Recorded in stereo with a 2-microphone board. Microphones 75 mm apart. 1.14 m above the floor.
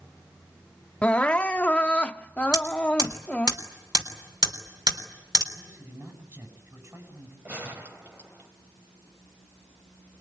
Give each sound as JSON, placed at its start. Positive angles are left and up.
{"t": 1.0, "sound": "crying", "side_deg": 15, "distance_m": 0.6}
{"t": 2.5, "sound": "hammering", "side_deg": -60, "distance_m": 3.5}
{"t": 5.5, "sound": "a man speaking", "side_deg": -40, "distance_m": 9.0}
{"t": 7.5, "sound": "a gunshot", "side_deg": -25, "distance_m": 3.0}